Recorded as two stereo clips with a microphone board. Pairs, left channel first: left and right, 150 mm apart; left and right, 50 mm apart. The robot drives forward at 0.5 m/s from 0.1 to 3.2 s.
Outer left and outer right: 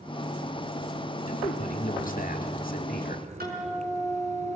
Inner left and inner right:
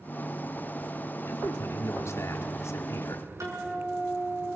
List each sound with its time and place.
1.3 s a man speaking: 60° left (ahead or behind), 2 m; by 3.3 s 75° left (ahead or behind), 1.9 m
3.4 s a guitar: 85° right, 6 m